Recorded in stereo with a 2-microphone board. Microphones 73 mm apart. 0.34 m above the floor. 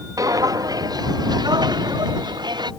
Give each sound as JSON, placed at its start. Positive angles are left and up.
{"t": 0.2, "sound": "footsteps", "side_deg": -50}